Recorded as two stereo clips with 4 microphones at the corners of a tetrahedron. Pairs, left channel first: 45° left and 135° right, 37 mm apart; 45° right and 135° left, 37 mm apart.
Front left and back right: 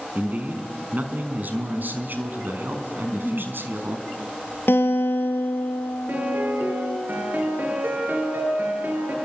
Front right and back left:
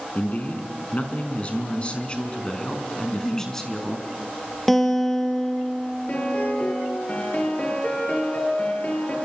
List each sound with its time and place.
0.1 s a man speaking: 90° right, 4.5 m; by 4.0 s 130° right, 4 m
3.0 s a giggle: 35° right, 1.7 m
4.7 s a guitar: 35° left, 3.5 m
6.1 s a piano: 100° right, 8 m